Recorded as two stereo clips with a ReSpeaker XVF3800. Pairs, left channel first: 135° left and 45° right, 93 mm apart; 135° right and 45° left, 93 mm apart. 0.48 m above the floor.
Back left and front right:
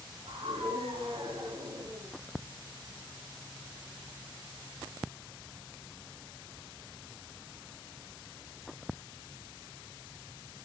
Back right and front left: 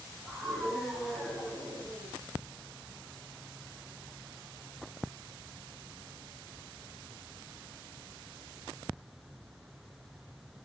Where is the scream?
45° right, 8 m; by 2.1 s 40° right, 9 m.